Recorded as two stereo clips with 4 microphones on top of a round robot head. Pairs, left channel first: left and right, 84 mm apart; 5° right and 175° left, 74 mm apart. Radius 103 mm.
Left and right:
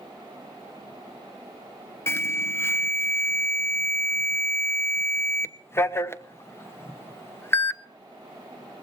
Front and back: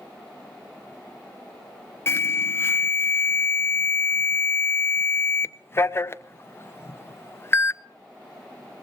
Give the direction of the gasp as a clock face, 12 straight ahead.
No gasp in this recording.